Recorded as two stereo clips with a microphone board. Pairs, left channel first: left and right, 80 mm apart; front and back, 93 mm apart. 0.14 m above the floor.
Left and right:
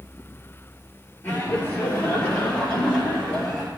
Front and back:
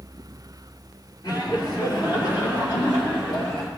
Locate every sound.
1.2 s laughter: 30° left, 3 m; by 3.7 s 10° left, 5.5 m